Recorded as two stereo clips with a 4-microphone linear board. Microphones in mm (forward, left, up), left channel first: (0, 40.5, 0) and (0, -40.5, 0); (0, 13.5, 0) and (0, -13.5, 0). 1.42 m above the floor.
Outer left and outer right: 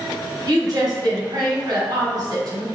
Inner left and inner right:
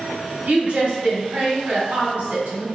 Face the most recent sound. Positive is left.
turn(degrees=-45)  # may be behind; listen again after turning